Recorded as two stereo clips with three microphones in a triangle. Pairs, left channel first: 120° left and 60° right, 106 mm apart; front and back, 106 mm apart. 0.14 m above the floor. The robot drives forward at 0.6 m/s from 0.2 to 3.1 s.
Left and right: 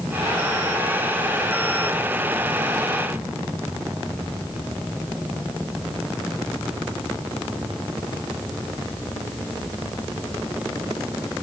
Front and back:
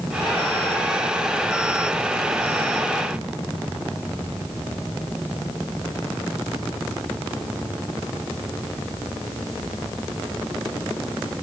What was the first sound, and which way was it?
Only background noise.